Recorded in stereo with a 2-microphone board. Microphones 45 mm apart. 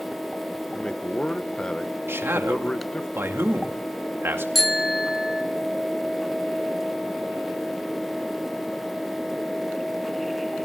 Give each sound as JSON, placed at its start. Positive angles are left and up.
{"t": 0.7, "sound": "a man speaking", "side_deg": 20, "distance_m": 0.9}
{"t": 2.1, "sound": "a man speaking", "side_deg": -55, "distance_m": 2.5}
{"t": 4.5, "sound": "a bicycle bell", "side_deg": 0, "distance_m": 2.0}